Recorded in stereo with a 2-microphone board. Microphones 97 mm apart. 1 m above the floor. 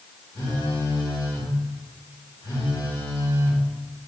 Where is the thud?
No thud in this recording.